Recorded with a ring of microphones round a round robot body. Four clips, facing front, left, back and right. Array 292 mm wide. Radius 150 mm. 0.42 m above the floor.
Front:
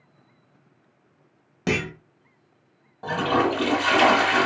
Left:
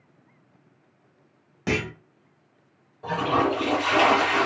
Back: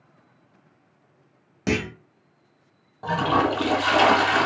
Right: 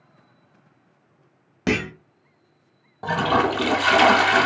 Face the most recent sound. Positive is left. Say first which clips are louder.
# right 3 dB, back 1 dB
turn(degrees=-90)